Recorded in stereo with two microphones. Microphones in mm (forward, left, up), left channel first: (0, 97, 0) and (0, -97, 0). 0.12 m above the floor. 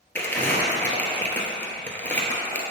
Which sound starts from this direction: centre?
Crumpling, at 0.1 s.